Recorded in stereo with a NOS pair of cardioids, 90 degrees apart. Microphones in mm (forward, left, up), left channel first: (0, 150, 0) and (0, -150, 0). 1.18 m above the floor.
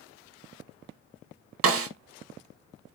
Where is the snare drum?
50° right, 0.7 m.